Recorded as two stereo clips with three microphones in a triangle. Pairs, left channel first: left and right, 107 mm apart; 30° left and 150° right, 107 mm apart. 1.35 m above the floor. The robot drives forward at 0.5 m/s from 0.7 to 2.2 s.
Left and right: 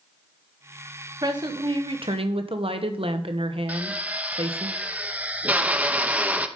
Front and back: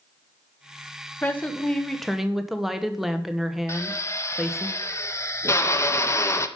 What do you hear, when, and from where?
1.2 s a woman speaking: 40° right, 1.3 m; by 4.7 s 60° right, 1.0 m
3.7 s a drill: 20° right, 0.6 m